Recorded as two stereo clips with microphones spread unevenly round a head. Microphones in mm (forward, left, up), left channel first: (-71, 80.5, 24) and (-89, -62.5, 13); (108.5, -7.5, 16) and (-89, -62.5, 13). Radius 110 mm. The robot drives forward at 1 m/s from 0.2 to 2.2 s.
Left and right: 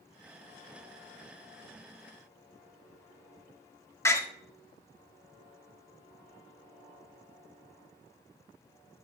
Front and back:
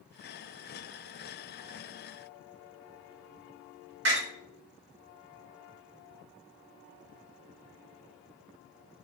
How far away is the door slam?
About 1.4 m.